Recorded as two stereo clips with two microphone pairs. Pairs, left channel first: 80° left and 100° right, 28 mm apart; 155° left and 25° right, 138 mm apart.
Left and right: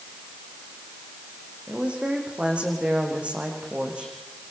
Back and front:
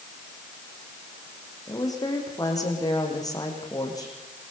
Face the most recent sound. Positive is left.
turn(degrees=-140)